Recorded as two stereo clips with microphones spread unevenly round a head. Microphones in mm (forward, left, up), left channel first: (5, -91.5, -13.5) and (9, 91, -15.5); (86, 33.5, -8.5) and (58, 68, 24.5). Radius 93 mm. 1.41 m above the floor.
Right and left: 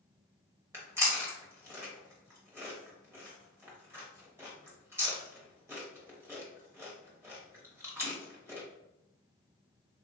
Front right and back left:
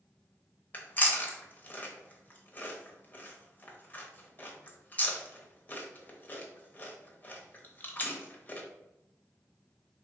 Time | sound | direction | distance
0.7 | chewing | 10° left | 0.9 m